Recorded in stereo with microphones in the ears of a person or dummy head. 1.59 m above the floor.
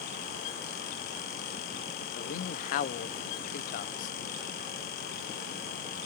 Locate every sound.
2.1 s a man speaking: 50° left (ahead or behind), 0.7 m